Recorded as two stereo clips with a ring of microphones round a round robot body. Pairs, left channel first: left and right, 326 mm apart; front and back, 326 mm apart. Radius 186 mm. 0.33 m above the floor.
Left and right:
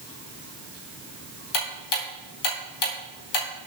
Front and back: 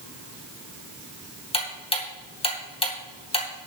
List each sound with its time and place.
1.5 s ticking: 70° left, 2.5 m